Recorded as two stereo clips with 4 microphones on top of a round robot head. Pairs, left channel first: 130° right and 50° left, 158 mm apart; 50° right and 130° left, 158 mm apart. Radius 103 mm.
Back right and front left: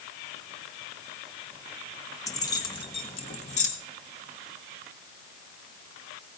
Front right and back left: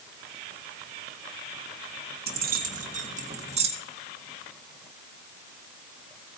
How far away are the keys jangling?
About 1.4 m.